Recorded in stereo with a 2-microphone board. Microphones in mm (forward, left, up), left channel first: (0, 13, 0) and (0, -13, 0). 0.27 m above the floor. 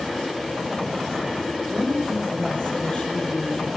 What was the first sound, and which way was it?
A woman speaking, 45° left (ahead or behind).